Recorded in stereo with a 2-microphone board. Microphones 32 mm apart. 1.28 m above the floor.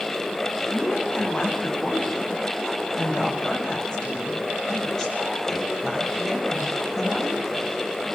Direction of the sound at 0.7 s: 40° left (ahead or behind).